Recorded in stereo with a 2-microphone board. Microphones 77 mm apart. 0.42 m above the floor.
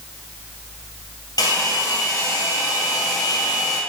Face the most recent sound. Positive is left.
turn(degrees=65)  # may be behind; listen again after turning